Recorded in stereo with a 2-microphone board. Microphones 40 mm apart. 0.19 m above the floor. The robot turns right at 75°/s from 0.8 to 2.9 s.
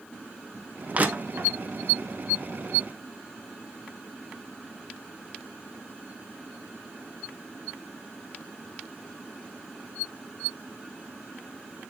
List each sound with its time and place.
0.9 s crushing: 30° right (ahead or behind), 1.0 m; by 1.5 s 60° right (ahead or behind), 1.0 m